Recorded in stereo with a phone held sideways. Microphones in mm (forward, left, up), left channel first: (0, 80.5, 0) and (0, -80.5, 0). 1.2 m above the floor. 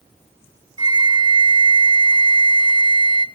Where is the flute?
25° right (ahead or behind), 0.7 m.